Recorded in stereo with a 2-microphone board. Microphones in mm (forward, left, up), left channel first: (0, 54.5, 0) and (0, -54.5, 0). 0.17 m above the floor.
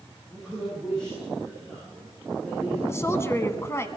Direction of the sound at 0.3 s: 5° left (ahead or behind).